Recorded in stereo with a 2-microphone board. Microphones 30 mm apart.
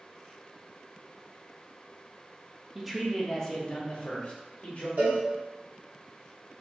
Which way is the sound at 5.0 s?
80° right.